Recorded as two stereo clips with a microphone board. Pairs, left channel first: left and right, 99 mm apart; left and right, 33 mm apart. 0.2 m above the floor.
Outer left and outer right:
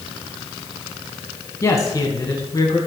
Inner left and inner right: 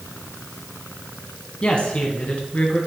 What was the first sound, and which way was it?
A man speaking, 35° left (ahead or behind).